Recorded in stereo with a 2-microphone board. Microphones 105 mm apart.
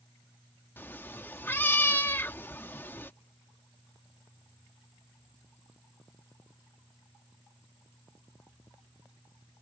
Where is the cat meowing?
20° left (ahead or behind).